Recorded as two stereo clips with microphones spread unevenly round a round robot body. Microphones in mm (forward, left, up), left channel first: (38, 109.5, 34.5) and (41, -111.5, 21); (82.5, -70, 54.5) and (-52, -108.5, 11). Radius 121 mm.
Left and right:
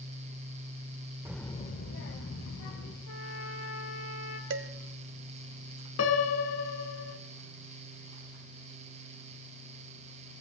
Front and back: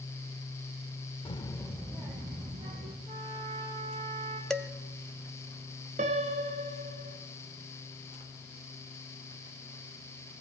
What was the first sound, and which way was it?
A child speaking, 35° right.